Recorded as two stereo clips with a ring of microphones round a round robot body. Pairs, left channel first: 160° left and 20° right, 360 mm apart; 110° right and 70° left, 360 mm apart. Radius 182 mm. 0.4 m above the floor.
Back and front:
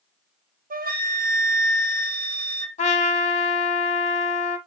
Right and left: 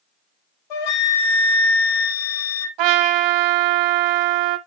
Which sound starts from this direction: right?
A flute, at 0.7 s.